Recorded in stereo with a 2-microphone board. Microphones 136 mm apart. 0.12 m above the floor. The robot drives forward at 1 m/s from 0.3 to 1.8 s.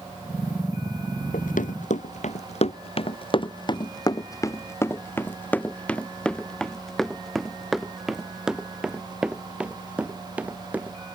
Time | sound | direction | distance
1.3 | running footsteps | 85° left | ?